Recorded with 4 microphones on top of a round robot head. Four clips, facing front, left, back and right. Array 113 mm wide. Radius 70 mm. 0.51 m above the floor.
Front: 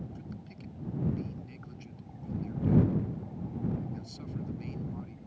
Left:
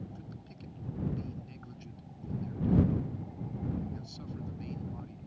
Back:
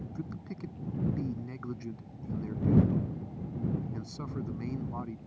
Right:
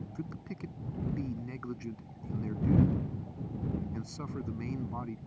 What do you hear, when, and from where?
0.1 s a man speaking: 140° right